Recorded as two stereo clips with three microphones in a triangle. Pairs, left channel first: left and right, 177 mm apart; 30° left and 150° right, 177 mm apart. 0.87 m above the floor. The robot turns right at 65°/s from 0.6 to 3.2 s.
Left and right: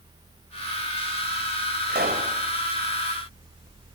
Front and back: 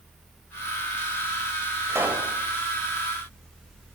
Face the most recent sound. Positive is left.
turn(degrees=5)